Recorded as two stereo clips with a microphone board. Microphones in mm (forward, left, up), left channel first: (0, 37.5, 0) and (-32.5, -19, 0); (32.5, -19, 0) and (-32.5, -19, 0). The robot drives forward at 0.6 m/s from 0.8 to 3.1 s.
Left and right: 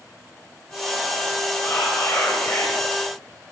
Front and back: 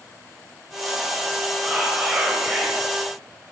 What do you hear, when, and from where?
1.6 s whispering: 105° left, 3 m; by 2.8 s 120° left, 3 m